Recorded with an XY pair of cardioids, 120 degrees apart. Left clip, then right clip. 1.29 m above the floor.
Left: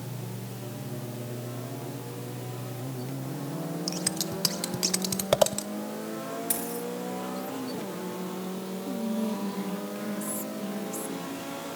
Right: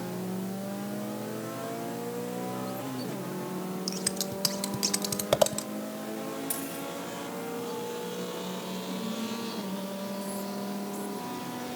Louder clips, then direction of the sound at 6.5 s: Left 3 dB; 30° left.